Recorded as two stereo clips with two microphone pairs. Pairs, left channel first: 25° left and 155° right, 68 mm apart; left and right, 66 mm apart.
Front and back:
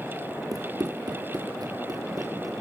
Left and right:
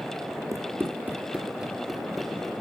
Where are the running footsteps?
125° right, 1.5 m; by 2.5 s 175° left, 3 m.